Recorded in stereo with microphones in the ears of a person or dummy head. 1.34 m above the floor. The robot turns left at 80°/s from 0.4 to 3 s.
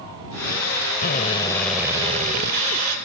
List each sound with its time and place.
1.0 s a drill: 55° left; by 3.0 s 100° right